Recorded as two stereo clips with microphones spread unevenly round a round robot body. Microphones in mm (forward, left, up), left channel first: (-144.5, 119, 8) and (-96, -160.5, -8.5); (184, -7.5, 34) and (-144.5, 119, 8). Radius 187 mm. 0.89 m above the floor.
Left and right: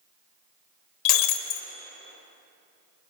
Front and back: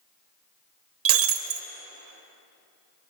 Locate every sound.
1.1 s breaking glass: 105° left, 0.8 m